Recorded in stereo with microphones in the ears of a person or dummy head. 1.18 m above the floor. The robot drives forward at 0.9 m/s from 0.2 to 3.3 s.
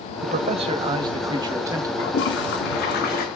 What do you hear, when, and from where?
0.2 s a man speaking: 35° right (ahead or behind), 0.9 m; by 3.0 s 10° right (ahead or behind), 3 m
2.0 s a toilet flushing: 75° left (ahead or behind), 1.9 m; by 3.3 s 50° left (ahead or behind), 2.5 m